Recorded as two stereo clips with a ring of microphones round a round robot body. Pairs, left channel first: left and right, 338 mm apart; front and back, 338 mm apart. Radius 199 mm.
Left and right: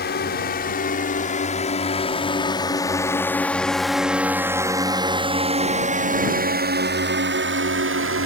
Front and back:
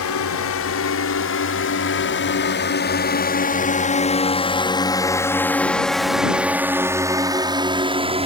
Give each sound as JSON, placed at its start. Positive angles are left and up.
{"t": 0.0, "sound": "a drone", "azimuth_deg": 35}